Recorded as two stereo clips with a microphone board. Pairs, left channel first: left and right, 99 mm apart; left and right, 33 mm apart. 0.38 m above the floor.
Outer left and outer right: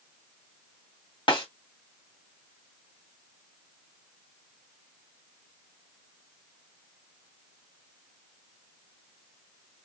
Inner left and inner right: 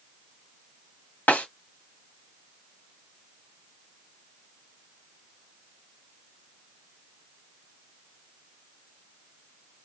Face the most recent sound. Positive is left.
turn(degrees=65)  # may be behind; listen again after turning